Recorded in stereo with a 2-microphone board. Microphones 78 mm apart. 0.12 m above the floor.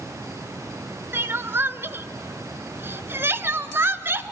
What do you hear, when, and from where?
1.1 s crying: 30° right (ahead or behind), 0.6 m